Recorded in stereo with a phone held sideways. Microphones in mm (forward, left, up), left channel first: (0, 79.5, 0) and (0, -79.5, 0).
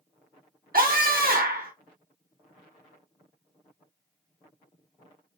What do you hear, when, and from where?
0.7 s a scream: 65° right (ahead or behind), 1.4 m